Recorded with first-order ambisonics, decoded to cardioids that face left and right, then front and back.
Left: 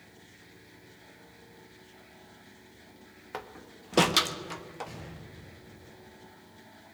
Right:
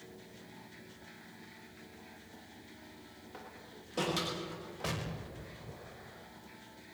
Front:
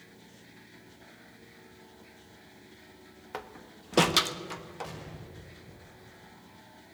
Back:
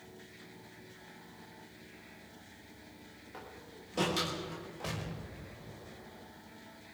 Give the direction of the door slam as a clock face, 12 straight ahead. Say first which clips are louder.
Left 9 dB, front 8 dB; 11 o'clock.